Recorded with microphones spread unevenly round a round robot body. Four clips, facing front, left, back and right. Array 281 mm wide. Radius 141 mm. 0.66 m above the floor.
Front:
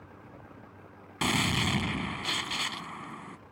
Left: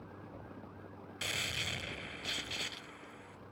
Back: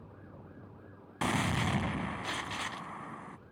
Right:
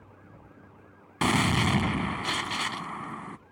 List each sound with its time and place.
1.2 s a gunshot: 75° right